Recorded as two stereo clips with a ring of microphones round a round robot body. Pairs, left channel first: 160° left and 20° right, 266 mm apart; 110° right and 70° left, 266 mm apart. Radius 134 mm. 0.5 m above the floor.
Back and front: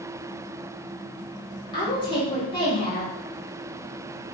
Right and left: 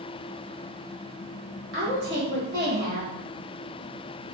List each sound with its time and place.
1.7 s a woman speaking: 90° left, 1.2 m